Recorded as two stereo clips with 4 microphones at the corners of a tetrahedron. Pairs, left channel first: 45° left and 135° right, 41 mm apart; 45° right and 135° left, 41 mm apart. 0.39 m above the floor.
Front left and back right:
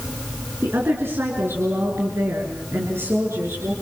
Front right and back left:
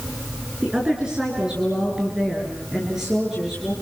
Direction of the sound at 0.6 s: 155° right.